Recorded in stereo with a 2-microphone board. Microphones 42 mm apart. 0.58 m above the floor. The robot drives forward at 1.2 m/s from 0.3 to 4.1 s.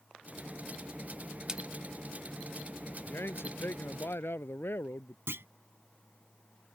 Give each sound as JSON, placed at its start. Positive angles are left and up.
{"t": 1.5, "sound": "a splash", "side_deg": -20}
{"t": 3.0, "sound": "a man speaking", "side_deg": 80}
{"t": 5.3, "sound": "a clunk", "side_deg": -75}